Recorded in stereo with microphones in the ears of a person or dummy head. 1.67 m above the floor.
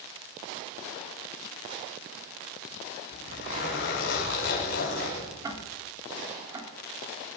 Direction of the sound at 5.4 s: 20° right (ahead or behind).